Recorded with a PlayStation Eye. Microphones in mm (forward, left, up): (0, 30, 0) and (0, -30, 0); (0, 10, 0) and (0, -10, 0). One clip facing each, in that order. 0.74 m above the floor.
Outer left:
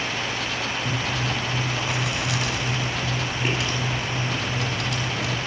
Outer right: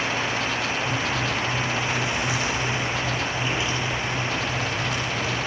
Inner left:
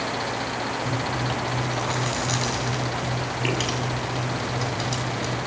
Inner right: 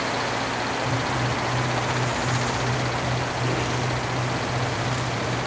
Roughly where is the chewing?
Left.